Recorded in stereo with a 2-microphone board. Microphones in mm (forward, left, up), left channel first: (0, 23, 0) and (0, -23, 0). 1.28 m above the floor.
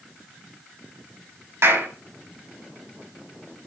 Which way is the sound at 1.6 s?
75° right (ahead or behind).